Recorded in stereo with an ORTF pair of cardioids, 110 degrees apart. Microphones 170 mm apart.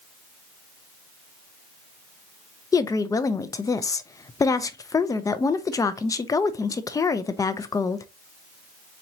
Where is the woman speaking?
20° left, 0.5 m.